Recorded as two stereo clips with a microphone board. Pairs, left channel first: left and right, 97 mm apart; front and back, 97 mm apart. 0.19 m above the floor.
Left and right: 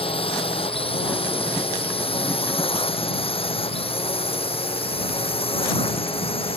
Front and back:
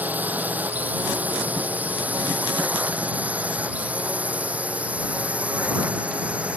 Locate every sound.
0.0 s a drone: 110° left; by 6.6 s 105° left